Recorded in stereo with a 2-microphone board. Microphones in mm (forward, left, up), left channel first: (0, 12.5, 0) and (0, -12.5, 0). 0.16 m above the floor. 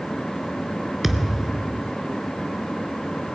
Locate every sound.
1.0 s a thud: 10° right (ahead or behind), 1.0 m